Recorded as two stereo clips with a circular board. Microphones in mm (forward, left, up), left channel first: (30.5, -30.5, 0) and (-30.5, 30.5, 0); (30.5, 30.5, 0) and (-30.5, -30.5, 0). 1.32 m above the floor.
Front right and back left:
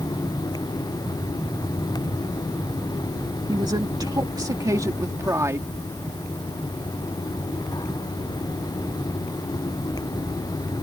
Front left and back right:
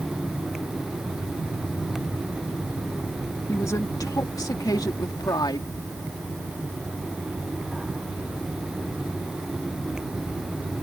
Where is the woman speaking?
100° left; by 5.7 s 80° left.